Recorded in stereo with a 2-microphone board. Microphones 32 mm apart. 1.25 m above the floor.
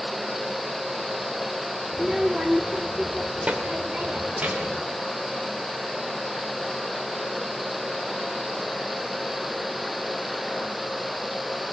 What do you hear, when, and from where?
1.9 s a child speaking: 15° right (ahead or behind), 1.8 m; by 4.8 s 60° right (ahead or behind), 3.5 m